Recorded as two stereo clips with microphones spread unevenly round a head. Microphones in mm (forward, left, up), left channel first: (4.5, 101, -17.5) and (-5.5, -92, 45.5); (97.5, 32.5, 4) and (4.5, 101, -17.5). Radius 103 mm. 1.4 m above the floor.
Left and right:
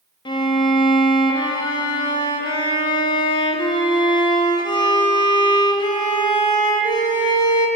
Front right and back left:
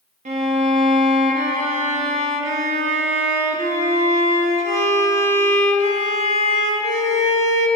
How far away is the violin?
About 1.1 m.